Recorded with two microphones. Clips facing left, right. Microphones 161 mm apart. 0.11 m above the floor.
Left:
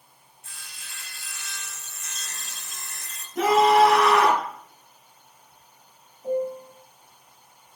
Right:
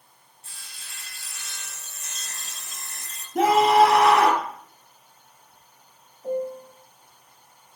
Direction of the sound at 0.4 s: 35° right (ahead or behind).